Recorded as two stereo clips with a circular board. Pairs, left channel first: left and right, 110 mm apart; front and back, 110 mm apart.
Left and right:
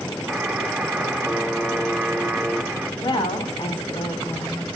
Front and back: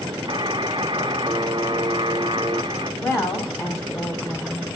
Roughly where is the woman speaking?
Ahead left.